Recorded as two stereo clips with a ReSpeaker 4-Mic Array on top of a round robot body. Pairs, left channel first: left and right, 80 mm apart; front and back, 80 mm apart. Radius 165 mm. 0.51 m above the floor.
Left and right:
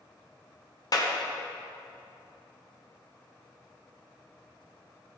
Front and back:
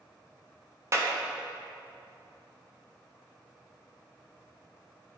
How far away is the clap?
About 1.6 m.